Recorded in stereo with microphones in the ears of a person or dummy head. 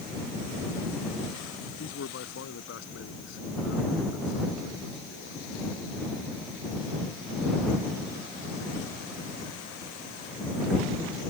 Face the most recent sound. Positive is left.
turn(degrees=75)  # may be behind; listen again after turning